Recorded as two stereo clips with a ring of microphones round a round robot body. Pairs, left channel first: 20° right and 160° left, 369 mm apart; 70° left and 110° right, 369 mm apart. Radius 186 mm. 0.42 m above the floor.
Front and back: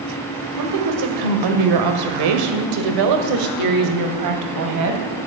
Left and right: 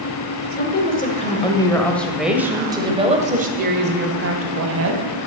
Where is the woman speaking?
125° left, 2.0 m; by 5.1 s 160° right, 2.5 m.